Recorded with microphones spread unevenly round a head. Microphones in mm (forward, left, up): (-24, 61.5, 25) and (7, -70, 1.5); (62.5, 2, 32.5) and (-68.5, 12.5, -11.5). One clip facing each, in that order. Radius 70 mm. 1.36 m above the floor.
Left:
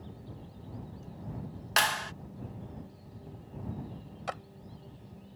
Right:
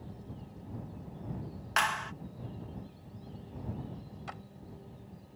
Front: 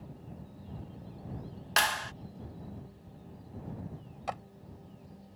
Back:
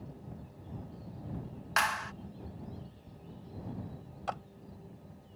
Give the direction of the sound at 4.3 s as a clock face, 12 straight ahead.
10 o'clock.